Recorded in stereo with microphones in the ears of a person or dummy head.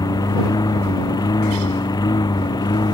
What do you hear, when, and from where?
0.0 s a lawn mower: 15° left (ahead or behind); by 2.9 s 20° left (ahead or behind)